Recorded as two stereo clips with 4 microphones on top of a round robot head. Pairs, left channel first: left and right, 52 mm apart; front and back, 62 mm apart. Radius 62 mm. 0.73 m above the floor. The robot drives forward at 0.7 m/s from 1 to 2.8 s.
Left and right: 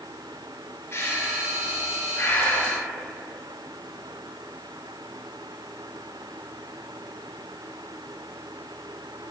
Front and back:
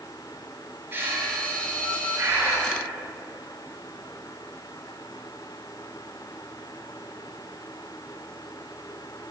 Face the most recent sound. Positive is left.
turn(degrees=135)